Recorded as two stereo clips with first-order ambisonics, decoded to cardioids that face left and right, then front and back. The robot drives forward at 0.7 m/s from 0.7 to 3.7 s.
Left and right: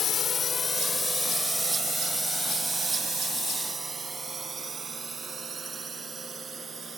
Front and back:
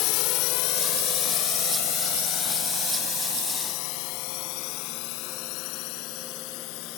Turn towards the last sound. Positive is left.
turn(degrees=-20)